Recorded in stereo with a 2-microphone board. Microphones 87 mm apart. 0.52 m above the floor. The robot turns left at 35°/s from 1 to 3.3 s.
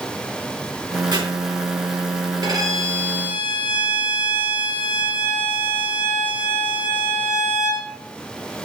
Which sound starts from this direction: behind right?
A violin, at 2.4 s.